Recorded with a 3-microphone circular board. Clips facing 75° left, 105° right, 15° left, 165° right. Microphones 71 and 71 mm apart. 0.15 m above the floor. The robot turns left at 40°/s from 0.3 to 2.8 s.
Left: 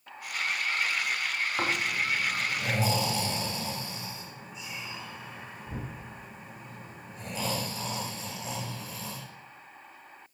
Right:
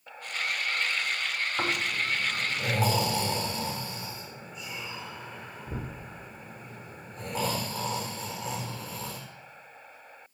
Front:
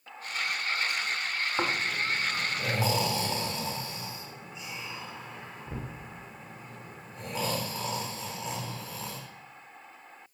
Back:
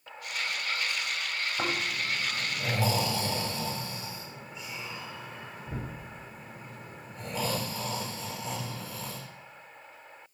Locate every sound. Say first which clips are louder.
1.6 s snoring: even, front 2 dB; 5° right, 5 m; by 9.2 s 55° right, 5 m